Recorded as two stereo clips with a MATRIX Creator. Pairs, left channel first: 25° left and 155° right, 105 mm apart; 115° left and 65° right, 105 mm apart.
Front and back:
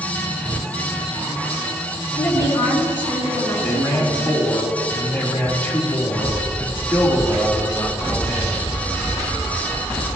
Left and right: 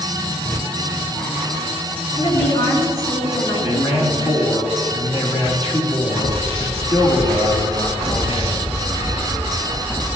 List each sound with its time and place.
2.2 s a woman speaking: 95° left, 4.5 m
3.6 s a man speaking: 95° left, 3 m